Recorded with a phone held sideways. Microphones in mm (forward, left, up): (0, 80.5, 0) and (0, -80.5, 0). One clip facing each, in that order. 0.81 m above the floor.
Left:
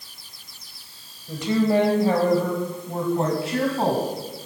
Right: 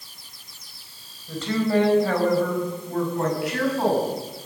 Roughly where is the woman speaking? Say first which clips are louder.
Left 2 dB; centre.